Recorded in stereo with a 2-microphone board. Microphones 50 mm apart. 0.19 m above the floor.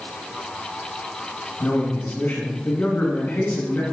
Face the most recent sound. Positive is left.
turn(degrees=35)  # may be behind; listen again after turning